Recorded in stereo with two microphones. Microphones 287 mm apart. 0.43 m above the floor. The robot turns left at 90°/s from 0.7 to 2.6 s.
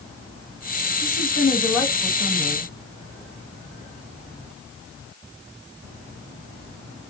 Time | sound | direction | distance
1.0 | a woman speaking | 80° left | 2 m